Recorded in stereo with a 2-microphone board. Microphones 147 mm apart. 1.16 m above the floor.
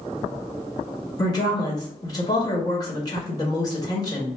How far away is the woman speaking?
About 1.3 m.